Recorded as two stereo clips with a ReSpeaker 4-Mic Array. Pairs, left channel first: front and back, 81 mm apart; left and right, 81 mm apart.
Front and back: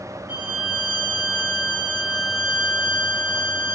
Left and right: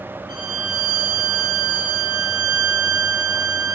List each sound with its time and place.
0.3 s a violin: 105° right, 2.5 m